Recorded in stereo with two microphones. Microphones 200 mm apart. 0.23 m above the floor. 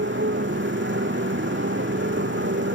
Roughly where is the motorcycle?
Right.